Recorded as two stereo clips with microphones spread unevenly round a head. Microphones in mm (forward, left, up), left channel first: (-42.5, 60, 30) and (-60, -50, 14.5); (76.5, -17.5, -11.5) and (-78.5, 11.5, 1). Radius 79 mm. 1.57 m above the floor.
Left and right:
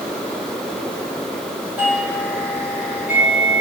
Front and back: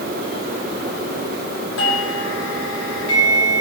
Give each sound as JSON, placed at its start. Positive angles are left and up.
{"t": 1.8, "sound": "a doorbell", "azimuth_deg": -20, "distance_m": 5.0}